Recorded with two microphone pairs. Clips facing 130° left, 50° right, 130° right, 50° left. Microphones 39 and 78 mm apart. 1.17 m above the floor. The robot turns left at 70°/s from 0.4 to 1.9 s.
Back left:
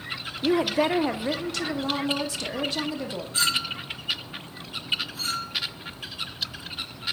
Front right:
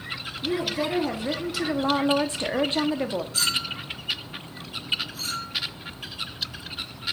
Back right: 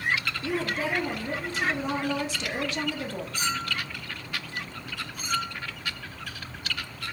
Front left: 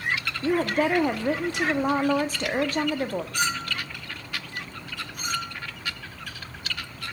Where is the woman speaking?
110° left, 1.4 m; by 3.2 s 5° left, 1.4 m.